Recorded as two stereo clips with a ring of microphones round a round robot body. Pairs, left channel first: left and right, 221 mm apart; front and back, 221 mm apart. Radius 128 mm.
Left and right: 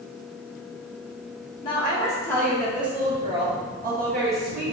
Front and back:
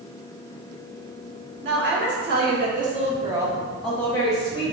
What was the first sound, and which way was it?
A woman speaking, 155° left.